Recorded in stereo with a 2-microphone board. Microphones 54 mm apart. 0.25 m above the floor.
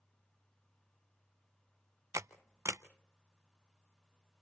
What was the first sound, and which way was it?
A camera shutter, 70° right (ahead or behind).